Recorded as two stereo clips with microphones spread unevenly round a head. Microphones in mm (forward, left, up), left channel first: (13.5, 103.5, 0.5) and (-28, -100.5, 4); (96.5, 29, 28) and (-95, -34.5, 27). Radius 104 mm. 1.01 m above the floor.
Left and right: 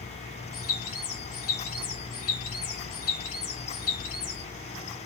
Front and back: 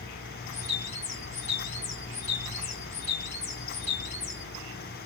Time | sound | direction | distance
0.5 | a bird | 80° left | 1.7 m